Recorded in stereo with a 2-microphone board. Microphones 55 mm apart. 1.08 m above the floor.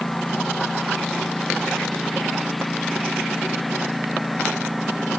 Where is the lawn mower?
5° left (ahead or behind); by 5.2 s centre (ahead or behind).